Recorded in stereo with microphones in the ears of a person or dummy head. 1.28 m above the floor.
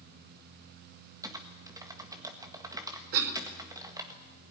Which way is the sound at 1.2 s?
15° right (ahead or behind).